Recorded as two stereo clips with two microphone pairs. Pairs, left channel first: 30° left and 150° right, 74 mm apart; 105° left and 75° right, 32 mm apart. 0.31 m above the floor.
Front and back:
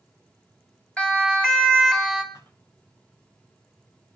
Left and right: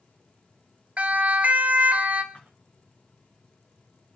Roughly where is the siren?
Ahead right.